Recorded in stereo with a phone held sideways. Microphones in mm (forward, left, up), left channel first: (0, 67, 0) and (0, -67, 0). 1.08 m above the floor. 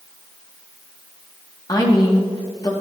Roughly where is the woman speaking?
Left.